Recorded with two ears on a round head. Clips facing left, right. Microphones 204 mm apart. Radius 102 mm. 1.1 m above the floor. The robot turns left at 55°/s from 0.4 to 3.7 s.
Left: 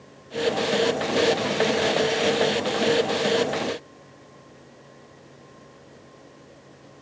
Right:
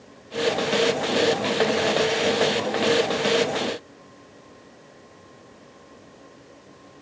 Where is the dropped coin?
No dropped coin in this recording.